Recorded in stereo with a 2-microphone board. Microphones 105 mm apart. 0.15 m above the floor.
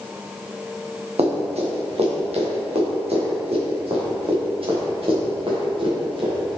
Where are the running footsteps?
90° right, 2.5 m; by 6.6 s 55° right (ahead or behind), 5 m.